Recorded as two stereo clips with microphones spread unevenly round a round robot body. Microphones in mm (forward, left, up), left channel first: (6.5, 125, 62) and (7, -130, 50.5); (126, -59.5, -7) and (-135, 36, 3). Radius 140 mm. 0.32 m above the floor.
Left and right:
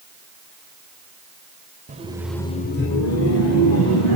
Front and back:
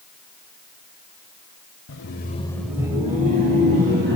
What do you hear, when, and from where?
1.9 s laughter: 40° right, 1.2 m; by 4.2 s 105° left, 2.5 m